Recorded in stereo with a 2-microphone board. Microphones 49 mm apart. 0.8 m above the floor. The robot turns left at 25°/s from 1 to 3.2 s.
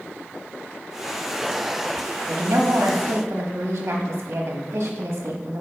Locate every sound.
2.3 s a woman speaking: 65° right (ahead or behind), 0.9 m; by 5.6 s 55° right (ahead or behind), 0.9 m